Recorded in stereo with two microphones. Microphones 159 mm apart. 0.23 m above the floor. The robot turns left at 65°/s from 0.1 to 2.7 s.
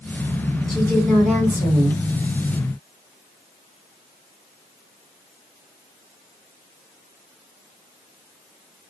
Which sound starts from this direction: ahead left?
A woman speaking, at 0.7 s.